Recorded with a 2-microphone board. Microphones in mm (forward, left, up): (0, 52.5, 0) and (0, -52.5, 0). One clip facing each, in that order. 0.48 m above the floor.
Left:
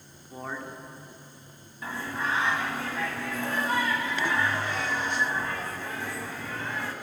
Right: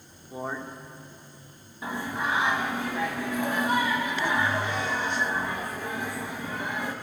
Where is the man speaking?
15° right (ahead or behind), 0.8 m.